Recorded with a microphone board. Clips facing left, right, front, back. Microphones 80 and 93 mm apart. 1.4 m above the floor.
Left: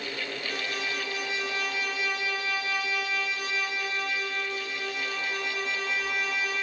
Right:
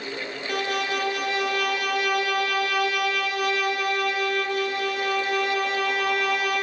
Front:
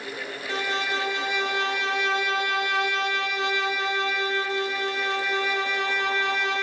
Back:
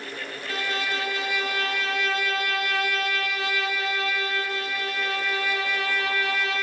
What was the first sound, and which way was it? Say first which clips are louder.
A violin: right 10 dB, front 2 dB; 65° right.